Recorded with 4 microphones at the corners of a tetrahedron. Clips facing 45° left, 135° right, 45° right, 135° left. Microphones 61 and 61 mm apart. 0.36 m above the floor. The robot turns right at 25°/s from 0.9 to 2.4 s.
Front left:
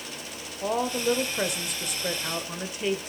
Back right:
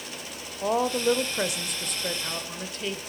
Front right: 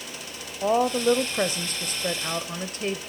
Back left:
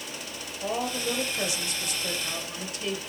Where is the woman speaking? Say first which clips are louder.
Back right 2 dB, front right 9 dB; 60° right, 1.1 m; by 3.0 s 25° right, 1.1 m.